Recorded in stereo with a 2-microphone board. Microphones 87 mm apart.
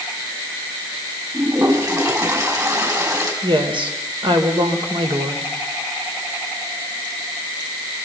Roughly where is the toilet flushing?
Right.